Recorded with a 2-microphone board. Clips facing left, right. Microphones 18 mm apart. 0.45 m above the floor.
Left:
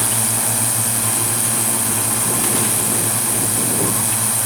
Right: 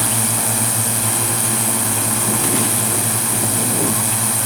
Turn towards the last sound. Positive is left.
turn(degrees=-10)  # may be behind; listen again after turning